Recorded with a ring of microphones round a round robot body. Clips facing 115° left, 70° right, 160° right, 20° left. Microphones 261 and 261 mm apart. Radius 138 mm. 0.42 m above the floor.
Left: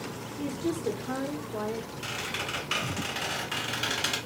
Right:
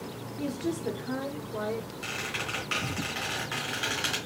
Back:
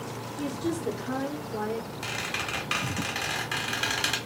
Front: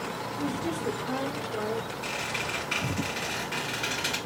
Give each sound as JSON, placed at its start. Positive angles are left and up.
{"t": 0.4, "sound": "a woman speaking", "azimuth_deg": -145, "distance_m": 1.1}
{"t": 2.0, "sound": "a squeak", "azimuth_deg": -165, "distance_m": 2.0}